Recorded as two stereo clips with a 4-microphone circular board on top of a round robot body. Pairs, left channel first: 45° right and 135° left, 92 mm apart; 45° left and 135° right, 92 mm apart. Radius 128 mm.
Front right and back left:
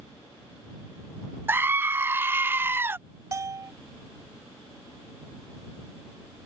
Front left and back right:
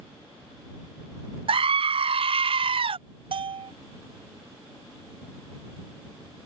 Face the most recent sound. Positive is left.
turn(degrees=-165)